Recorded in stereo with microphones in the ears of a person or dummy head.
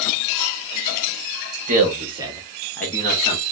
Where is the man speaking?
45° right (ahead or behind), 1.2 m; by 3.4 s 35° left (ahead or behind), 1.0 m.